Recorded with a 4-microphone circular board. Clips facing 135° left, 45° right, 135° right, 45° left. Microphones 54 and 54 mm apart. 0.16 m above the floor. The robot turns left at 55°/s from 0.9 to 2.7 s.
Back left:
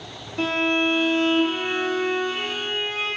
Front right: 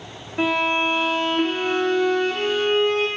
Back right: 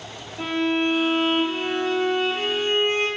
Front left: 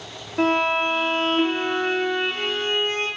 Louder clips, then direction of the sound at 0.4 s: Front right 1 dB, front left 3 dB; 30° left.